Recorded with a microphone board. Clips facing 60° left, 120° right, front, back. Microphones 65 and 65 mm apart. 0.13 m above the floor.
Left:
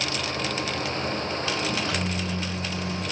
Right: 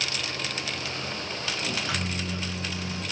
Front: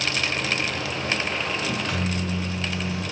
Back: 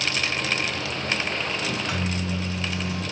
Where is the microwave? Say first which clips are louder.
Left 3 dB, front 1 dB; 115° right, 1.1 m.